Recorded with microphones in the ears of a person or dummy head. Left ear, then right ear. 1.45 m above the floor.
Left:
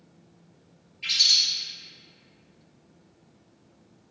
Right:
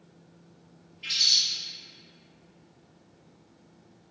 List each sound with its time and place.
1.0 s a bird: 40° left (ahead or behind), 2.0 m